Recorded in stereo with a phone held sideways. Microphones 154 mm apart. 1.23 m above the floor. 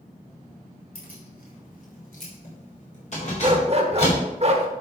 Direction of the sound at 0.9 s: 80° left.